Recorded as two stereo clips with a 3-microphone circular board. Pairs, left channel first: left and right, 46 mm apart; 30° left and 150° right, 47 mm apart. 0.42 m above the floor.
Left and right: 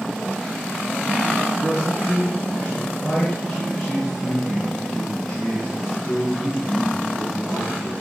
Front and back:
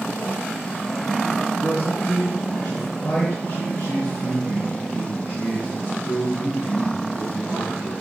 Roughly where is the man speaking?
Ahead.